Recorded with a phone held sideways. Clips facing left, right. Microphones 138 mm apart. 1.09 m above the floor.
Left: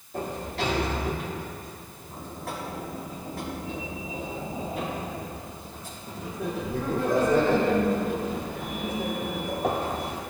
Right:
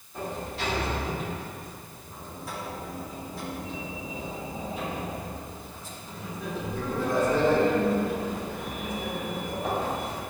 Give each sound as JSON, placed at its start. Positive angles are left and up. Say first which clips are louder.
{"t": 0.1, "sound": "a sliding door", "louder": "left 3 dB", "side_deg": 60, "distance_m": 2.0}